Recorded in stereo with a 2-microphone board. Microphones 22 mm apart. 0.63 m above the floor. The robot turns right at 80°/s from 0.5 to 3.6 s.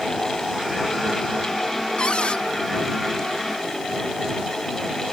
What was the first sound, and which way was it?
A cupboard door, 60° left.